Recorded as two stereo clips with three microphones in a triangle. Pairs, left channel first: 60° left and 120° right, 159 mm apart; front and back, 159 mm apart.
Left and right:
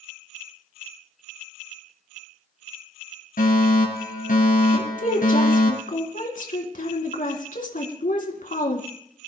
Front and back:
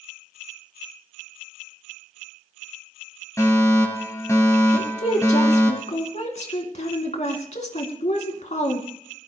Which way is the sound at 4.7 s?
40° left.